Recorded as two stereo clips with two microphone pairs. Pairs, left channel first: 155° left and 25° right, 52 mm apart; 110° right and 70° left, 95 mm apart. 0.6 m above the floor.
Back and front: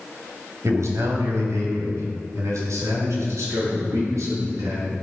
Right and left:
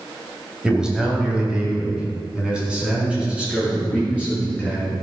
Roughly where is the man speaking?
Ahead.